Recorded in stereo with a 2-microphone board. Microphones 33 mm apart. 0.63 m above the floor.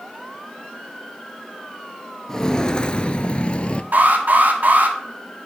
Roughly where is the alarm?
Right.